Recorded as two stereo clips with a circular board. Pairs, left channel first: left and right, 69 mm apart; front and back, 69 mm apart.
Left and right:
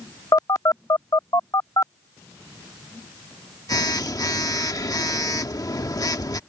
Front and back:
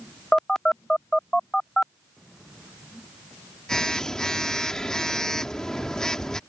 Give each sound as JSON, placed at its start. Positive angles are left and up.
{"t": 0.3, "sound": "a phone buzzing", "azimuth_deg": 80}